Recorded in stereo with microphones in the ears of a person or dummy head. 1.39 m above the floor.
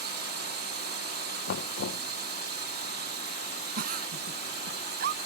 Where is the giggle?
55° right (ahead or behind).